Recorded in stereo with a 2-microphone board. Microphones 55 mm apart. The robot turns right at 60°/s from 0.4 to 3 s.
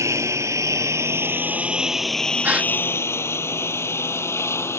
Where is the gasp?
35° right (ahead or behind); by 2.7 s 20° right (ahead or behind).